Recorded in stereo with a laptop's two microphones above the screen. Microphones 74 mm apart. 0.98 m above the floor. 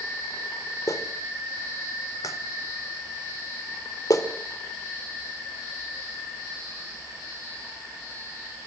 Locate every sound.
0.9 s a clap: 50° left (ahead or behind), 2.5 m